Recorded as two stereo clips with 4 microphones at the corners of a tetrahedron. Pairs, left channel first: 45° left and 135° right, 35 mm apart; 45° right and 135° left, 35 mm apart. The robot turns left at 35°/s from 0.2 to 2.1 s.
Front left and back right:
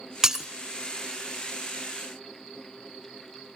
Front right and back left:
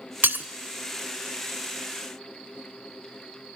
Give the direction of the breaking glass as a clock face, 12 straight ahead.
7 o'clock.